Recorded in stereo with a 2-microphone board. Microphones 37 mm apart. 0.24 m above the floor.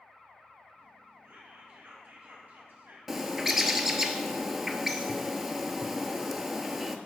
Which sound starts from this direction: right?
Whispering, at 1.2 s.